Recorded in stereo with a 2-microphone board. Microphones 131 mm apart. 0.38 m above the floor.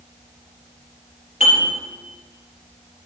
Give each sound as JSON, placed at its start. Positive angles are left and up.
{"t": 1.4, "sound": "dishes clattering", "side_deg": 65, "distance_m": 4.0}